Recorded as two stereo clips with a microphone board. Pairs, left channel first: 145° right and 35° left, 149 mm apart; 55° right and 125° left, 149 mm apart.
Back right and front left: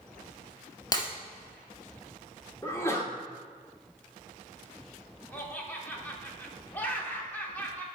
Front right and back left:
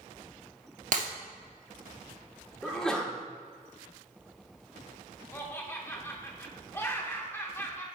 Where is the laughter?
90° right, 0.8 m.